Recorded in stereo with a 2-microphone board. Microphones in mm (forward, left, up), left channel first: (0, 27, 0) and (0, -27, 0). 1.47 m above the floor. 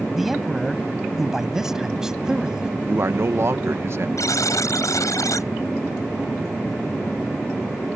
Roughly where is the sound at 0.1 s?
Centre.